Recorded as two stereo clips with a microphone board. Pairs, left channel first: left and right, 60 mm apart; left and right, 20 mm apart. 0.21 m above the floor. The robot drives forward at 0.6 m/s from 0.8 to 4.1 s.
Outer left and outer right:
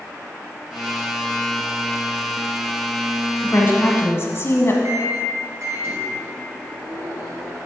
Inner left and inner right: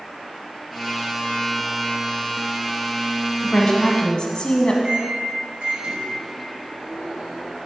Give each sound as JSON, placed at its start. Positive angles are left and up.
{"t": 3.4, "sound": "a woman speaking", "side_deg": 35, "distance_m": 1.4}
{"t": 4.8, "sound": "a microwave", "side_deg": -50, "distance_m": 1.9}